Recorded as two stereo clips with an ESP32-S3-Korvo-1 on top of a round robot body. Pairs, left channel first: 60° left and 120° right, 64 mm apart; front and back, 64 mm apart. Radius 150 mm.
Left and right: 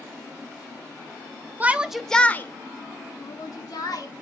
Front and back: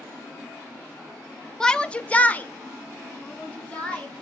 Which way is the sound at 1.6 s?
75° right.